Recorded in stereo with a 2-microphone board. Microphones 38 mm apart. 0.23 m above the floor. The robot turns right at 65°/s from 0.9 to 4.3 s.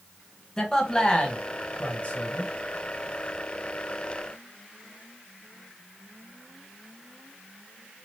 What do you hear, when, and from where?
0.6 s a man speaking: 20° left (ahead or behind), 1.2 m; by 2.5 s 25° left (ahead or behind), 1.2 m